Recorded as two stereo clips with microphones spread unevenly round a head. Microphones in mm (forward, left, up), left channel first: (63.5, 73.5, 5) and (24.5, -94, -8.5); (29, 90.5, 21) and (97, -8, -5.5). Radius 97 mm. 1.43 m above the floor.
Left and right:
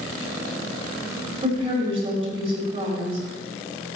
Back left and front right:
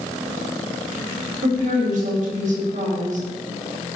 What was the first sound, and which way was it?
A woman speaking, 50° right.